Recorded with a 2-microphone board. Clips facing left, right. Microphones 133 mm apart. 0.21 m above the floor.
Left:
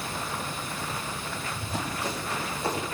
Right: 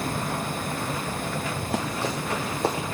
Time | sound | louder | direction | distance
1.6 | running footsteps | right 3 dB | 75° right (ahead or behind) | 3.5 m